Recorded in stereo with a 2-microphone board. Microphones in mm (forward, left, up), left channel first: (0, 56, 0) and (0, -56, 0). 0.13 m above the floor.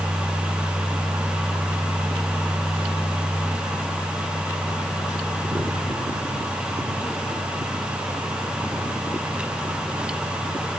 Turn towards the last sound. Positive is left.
No sound to turn to.